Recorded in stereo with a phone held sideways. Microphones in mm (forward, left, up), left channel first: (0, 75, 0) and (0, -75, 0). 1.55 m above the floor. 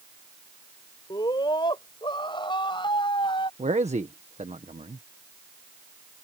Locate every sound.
1.1 s a scream: 30° left (ahead or behind)
3.6 s a man speaking: 45° right (ahead or behind)